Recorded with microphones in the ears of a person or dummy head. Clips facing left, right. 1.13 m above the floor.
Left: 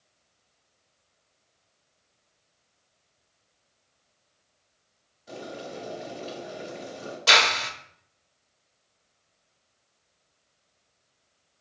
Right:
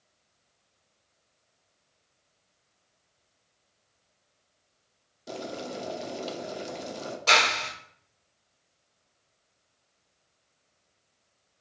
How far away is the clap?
About 0.7 m.